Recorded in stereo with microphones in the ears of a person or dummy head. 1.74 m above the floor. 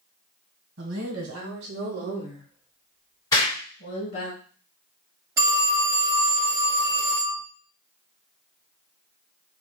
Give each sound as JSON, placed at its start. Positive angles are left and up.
{"t": 0.8, "sound": "a woman speaking", "side_deg": -85, "distance_m": 1.3}
{"t": 3.3, "sound": "an explosion", "side_deg": 20, "distance_m": 1.9}
{"t": 5.4, "sound": "a phone ringing", "side_deg": -15, "distance_m": 0.8}